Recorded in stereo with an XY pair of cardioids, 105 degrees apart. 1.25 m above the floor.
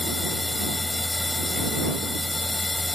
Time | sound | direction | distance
0.0 | a machine running | 15° left | ?